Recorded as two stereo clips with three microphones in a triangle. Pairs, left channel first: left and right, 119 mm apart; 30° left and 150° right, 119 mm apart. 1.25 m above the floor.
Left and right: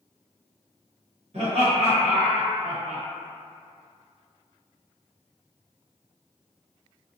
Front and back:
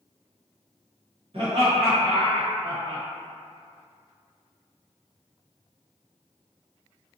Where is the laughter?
115° right, 1.3 m.